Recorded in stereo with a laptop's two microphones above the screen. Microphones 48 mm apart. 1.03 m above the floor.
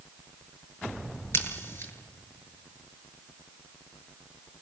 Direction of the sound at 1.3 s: 55° left (ahead or behind).